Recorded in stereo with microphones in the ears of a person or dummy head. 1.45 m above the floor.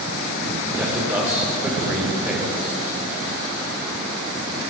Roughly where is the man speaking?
Centre.